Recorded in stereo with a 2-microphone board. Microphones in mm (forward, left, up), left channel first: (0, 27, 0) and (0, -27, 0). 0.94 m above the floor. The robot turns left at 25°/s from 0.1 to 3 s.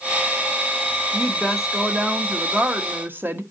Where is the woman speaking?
5° left, 1.0 m; by 3.4 s 45° right, 1.0 m.